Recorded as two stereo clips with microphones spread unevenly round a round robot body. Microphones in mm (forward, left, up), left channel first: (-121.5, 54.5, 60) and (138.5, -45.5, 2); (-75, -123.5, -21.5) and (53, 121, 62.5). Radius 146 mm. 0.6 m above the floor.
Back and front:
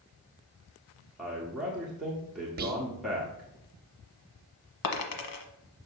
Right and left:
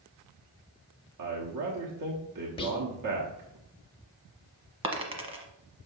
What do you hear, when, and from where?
1.2 s a man speaking: 55° left, 1.2 m
2.6 s whispering: 60° right, 1.0 m
4.8 s a dropped coin: 130° left, 1.2 m